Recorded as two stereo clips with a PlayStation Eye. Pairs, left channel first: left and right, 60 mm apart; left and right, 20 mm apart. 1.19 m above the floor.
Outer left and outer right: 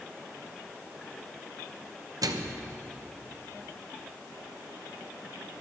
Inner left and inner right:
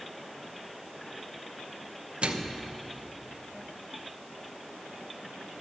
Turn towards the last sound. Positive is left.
turn(degrees=-70)  # may be behind; listen again after turning